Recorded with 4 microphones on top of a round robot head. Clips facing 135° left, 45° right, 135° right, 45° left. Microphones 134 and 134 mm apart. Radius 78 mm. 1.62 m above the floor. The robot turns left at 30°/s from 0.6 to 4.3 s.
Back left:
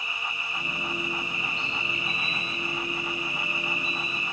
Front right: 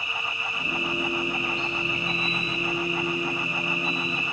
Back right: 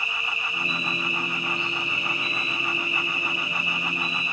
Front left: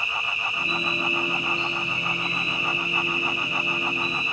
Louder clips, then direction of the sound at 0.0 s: Front right 3 dB, front left 2 dB; 65° right.